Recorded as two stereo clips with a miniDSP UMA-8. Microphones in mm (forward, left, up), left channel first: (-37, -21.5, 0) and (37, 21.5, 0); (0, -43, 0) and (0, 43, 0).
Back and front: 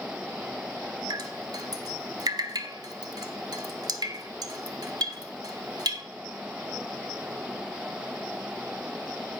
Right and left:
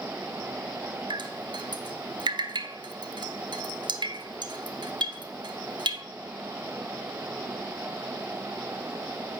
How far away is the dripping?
About 0.8 m.